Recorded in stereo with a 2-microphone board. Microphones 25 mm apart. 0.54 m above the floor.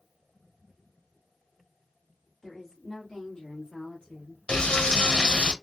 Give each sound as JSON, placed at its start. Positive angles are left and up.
{"t": 2.4, "sound": "a woman speaking", "side_deg": 5, "distance_m": 1.3}
{"t": 4.5, "sound": "frying", "side_deg": 55, "distance_m": 0.9}